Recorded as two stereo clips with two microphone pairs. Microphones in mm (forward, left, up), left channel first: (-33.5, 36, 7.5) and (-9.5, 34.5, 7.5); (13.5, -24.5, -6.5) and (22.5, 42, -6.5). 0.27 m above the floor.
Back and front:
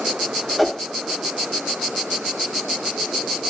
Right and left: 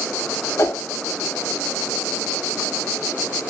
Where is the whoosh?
100° right, 0.5 m.